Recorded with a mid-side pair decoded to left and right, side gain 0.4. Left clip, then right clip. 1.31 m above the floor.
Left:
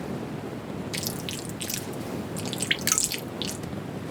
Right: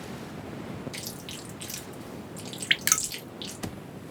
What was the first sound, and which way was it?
Chewing, 60° left.